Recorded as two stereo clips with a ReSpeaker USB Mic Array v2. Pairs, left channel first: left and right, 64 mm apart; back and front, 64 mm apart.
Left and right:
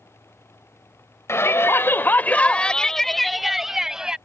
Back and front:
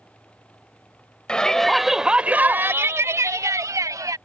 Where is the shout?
110° left; by 4.2 s 10° right.